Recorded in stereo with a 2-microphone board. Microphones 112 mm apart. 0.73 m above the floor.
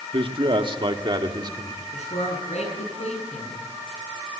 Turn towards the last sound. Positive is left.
turn(degrees=85)